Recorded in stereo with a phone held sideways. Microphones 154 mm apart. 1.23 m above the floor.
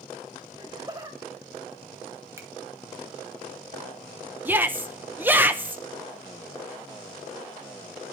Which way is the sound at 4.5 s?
10° right (ahead or behind).